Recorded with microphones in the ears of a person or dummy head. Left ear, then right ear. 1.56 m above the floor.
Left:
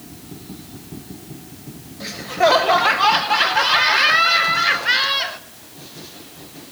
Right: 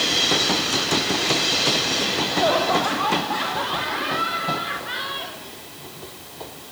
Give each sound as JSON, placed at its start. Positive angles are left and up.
{"t": 2.0, "sound": "laughter", "side_deg": 70, "distance_m": 1.5}